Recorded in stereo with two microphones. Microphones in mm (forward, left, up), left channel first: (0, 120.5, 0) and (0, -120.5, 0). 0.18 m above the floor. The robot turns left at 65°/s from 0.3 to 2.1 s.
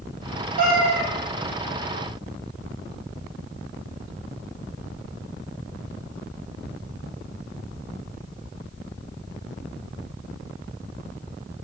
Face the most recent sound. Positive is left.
turn(degrees=-140)